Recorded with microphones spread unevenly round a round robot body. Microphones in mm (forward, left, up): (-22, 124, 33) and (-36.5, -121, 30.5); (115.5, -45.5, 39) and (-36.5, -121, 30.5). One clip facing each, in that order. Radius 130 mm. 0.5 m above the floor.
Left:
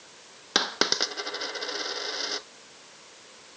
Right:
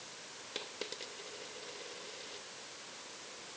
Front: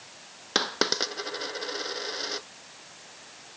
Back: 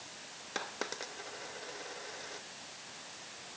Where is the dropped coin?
70° left.